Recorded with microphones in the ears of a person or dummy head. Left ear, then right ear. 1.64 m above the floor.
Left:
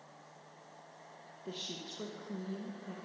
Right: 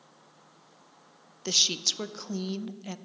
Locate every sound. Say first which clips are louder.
1.4 s a woman speaking: right 18 dB; 75° right (ahead or behind), 0.6 m